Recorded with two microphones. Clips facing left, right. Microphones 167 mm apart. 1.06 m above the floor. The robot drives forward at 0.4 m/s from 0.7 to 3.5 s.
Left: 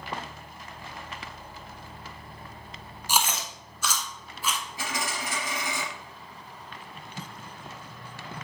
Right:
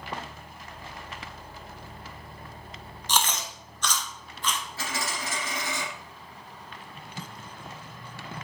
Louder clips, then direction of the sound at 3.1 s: Even; 10° left (ahead or behind).